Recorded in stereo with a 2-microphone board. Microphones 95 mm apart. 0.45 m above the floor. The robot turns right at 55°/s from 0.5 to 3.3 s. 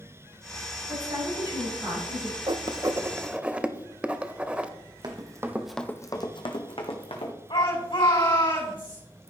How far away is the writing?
About 0.6 m.